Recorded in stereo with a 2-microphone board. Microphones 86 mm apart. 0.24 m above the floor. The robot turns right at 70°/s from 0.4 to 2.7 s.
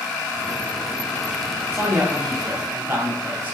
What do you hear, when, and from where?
1.7 s a man speaking: 125° right, 1.0 m; by 3.6 s 60° right, 1.0 m